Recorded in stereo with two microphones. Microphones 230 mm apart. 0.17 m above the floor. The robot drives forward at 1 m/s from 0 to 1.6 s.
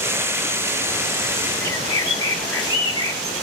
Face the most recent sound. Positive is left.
turn(degrees=65)  # may be behind; listen again after turning